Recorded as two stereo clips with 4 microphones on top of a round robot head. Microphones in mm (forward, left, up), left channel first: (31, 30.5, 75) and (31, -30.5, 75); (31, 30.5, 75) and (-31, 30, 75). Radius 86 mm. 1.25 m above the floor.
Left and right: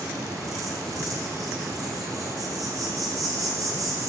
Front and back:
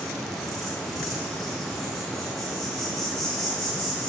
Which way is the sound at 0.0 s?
95° right.